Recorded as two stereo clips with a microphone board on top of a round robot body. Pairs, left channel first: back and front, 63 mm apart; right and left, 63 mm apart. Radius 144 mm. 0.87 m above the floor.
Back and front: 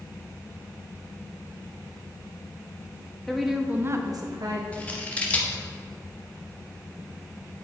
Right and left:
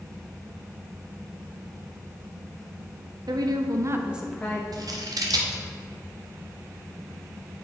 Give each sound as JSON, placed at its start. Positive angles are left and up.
{"t": 3.3, "sound": "a woman speaking", "azimuth_deg": 95, "distance_m": 1.3}
{"t": 4.7, "sound": "scissors", "azimuth_deg": 110, "distance_m": 1.4}